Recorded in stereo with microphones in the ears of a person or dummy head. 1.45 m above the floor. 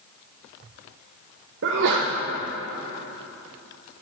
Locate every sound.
1.6 s a sneeze: 65° right (ahead or behind), 1.2 m